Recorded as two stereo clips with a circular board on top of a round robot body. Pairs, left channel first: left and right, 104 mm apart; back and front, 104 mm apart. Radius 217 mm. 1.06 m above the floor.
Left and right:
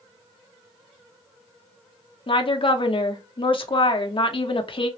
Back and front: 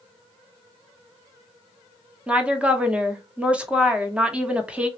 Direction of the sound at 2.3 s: 75° left.